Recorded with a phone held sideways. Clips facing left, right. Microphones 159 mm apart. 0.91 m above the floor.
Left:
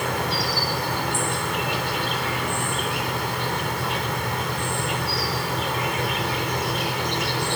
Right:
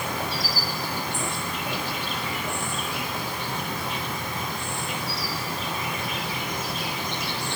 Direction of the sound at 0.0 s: 75° left (ahead or behind).